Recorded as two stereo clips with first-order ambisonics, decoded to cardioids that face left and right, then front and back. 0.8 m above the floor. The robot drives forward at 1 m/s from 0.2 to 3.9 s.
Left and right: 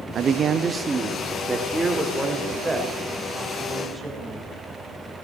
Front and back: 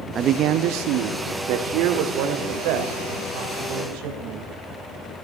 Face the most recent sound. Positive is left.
turn(degrees=-175)